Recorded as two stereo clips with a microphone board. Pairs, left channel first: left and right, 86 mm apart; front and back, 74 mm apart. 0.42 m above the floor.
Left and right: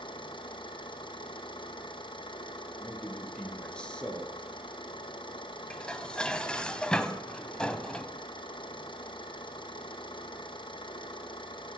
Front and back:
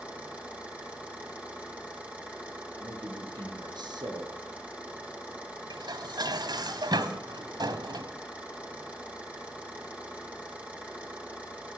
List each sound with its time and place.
0.0 s an engine running: 105° left, 5 m
2.8 s a man speaking: 170° left, 6.5 m
5.7 s dishes clattering: 170° left, 1.6 m